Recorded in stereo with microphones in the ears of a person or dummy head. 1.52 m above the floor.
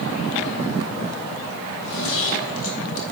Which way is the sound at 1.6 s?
75° left (ahead or behind).